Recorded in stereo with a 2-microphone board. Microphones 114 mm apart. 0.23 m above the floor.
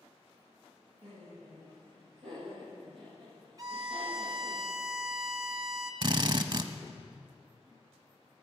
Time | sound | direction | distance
1.0 | laughter | 65° right (ahead or behind) | 6 m
3.6 | a violin | 35° right (ahead or behind) | 1.0 m
6.0 | a drill | 40° right (ahead or behind) | 0.7 m